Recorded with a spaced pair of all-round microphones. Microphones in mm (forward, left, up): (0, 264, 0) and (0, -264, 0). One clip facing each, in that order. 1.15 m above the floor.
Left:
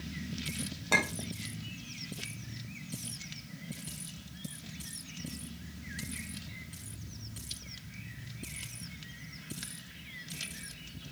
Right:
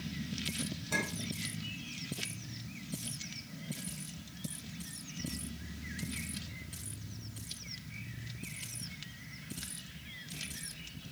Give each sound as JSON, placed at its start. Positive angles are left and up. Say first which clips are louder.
{"t": 0.9, "sound": "a clink", "louder": "left 6 dB", "side_deg": 80, "distance_m": 1.0}